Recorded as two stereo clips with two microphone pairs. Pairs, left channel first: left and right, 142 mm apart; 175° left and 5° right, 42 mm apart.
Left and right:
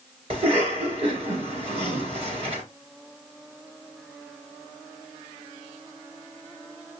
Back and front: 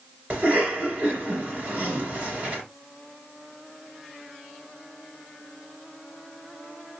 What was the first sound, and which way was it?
A cough, 55° right.